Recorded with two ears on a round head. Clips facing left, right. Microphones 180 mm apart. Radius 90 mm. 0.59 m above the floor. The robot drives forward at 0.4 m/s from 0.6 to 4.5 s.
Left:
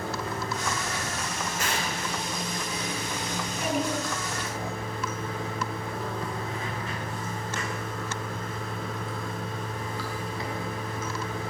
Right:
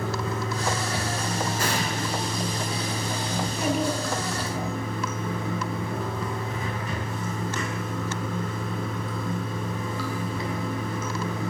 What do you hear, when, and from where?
0.0 s running water: 75° right (ahead or behind), 6.5 m; by 11.5 s 85° right, 6 m
1.6 s an explosion: 35° right (ahead or behind), 6.5 m
3.4 s a child speaking: 35° right (ahead or behind), 10 m